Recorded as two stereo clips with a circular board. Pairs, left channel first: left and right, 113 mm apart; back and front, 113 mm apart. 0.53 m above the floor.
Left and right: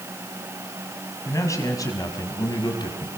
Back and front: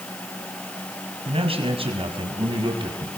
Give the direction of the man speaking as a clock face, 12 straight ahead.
11 o'clock.